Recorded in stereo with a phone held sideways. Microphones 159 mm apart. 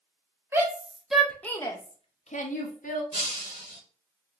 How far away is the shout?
About 1.1 m.